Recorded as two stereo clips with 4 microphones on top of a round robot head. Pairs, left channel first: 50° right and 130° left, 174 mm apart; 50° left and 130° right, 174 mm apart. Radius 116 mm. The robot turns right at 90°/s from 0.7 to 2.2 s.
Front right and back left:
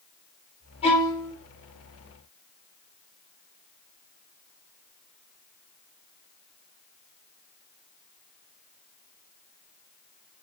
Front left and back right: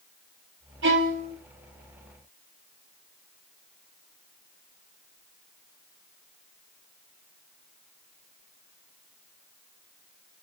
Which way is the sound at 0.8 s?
110° right.